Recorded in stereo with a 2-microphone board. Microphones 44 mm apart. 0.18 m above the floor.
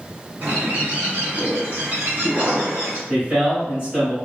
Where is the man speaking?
25° right (ahead or behind), 1.4 m.